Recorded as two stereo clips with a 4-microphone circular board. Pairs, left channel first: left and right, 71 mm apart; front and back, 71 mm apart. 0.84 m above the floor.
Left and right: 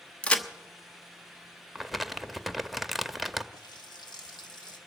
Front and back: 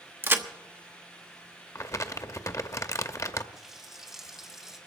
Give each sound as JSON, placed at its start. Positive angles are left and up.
{"t": 0.2, "sound": "a crack", "azimuth_deg": 150, "distance_m": 0.9}
{"t": 1.8, "sound": "crumpling", "azimuth_deg": 0, "distance_m": 0.7}
{"t": 3.5, "sound": "a running tap", "azimuth_deg": 95, "distance_m": 1.6}